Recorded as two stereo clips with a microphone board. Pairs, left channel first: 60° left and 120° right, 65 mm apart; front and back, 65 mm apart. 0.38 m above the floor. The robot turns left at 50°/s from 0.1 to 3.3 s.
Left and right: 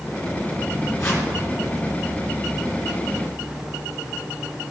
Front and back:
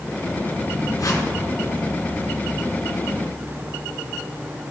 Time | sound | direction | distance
1.0 | a whoosh | 25° left | 3.5 m